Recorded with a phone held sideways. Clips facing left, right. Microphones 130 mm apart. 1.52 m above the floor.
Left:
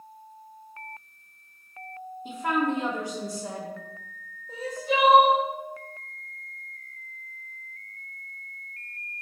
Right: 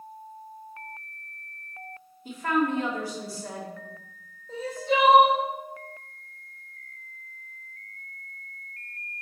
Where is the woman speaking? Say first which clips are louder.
Right 1 dB; 20° left (ahead or behind), 1.9 m.